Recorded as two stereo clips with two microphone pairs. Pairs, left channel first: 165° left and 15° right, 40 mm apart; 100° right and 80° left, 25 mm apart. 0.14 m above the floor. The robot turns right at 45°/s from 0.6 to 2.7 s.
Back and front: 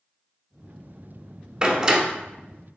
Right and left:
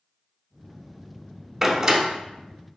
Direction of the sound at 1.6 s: 15° left.